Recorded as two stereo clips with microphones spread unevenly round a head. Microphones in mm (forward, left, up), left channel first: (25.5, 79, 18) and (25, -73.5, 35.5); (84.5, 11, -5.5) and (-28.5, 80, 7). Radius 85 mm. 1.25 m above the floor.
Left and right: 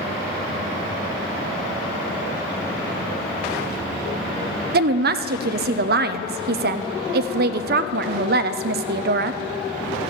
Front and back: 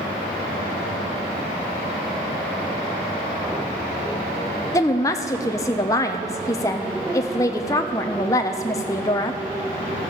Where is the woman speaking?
95° right, 0.6 m.